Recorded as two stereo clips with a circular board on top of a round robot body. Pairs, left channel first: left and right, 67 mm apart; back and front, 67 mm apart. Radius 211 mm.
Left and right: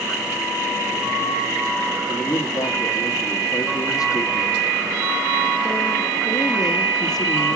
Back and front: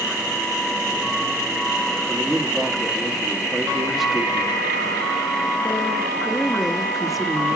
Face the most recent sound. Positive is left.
turn(degrees=90)